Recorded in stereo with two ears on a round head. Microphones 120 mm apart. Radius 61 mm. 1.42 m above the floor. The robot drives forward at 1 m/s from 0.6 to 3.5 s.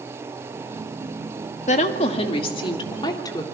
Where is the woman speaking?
60° left (ahead or behind), 1.9 m; by 3.4 s 30° left (ahead or behind), 3 m.